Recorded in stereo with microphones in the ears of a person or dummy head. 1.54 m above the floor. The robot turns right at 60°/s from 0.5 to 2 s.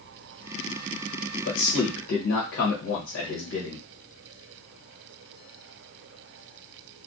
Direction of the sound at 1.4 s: 70° left.